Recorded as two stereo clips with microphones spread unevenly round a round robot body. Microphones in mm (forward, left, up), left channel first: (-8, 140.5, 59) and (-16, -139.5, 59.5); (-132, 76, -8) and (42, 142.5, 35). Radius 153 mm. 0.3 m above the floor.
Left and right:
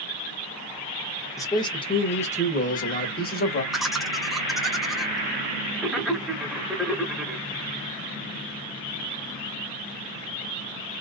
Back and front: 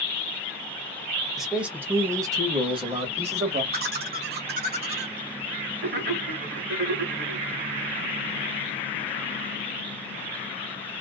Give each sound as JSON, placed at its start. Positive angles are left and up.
{"t": 1.4, "sound": "a man speaking", "azimuth_deg": 145, "distance_m": 1.5}
{"t": 3.7, "sound": "laughter", "azimuth_deg": -5, "distance_m": 1.1}